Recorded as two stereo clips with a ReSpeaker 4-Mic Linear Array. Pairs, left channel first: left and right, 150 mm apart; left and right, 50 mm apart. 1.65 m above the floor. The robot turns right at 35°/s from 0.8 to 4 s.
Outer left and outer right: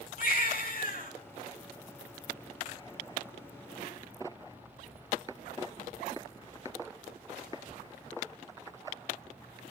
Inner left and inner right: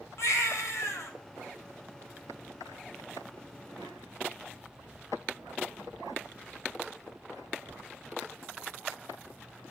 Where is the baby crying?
70° left (ahead or behind), 3.5 m; by 1.1 s 60° left (ahead or behind), 3.5 m.